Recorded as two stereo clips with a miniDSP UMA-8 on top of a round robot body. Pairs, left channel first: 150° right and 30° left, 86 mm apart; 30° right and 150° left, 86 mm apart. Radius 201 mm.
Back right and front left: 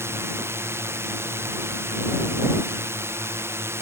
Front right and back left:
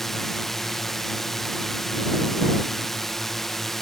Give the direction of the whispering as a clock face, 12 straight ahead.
No whispering in this recording.